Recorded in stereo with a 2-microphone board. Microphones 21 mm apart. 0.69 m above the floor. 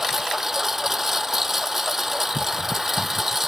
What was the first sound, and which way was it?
A lawn mower, 15° right (ahead or behind).